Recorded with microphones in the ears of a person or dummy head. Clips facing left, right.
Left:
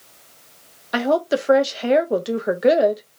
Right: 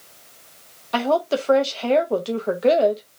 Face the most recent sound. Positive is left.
turn(degrees=15)  # may be behind; listen again after turning